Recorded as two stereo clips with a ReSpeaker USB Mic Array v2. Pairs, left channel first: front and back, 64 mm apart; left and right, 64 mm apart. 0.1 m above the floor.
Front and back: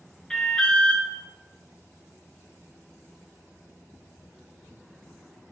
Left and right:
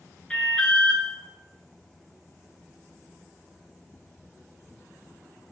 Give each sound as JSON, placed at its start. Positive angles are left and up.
{"t": 0.3, "sound": "an alarm", "azimuth_deg": 50, "distance_m": 0.8}